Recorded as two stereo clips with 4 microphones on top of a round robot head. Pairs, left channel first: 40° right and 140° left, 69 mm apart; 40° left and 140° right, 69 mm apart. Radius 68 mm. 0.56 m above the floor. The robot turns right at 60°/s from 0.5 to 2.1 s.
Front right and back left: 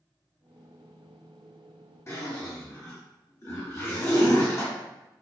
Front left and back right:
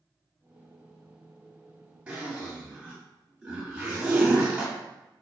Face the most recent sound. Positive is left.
turn(degrees=-70)